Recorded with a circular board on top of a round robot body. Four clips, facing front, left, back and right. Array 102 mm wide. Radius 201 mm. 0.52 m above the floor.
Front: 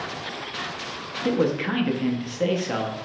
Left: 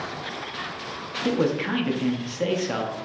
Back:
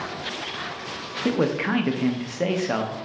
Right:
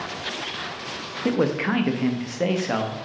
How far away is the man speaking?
About 0.8 m.